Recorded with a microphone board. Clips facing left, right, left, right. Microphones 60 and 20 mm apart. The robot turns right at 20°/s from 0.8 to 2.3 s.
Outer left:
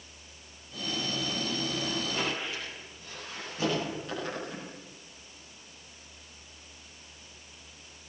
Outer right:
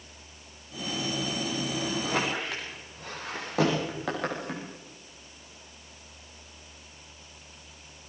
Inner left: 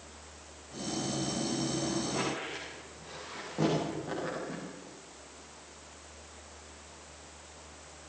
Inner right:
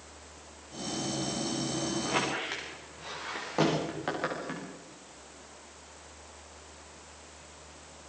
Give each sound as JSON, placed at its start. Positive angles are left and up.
{"t": 2.0, "sound": "a squeak", "side_deg": -85, "distance_m": 9.5}